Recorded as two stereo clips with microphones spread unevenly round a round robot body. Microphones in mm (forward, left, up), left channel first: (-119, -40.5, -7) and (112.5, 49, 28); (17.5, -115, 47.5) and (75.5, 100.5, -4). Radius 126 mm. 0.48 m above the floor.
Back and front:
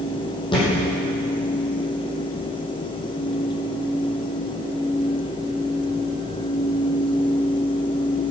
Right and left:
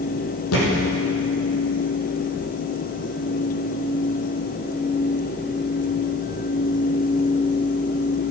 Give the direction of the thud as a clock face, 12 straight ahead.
3 o'clock.